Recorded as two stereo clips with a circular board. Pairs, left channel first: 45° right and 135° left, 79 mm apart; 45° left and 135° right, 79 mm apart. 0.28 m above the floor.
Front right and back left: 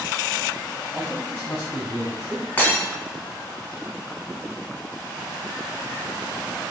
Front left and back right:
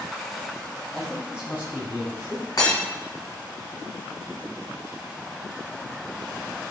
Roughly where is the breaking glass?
Ahead.